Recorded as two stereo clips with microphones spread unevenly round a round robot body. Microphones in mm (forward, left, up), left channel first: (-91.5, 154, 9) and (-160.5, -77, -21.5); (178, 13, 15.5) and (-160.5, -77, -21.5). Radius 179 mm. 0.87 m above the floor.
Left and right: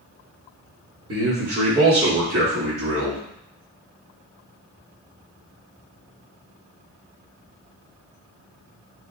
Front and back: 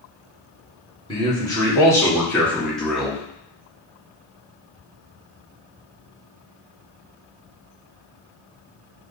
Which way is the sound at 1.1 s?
65° right.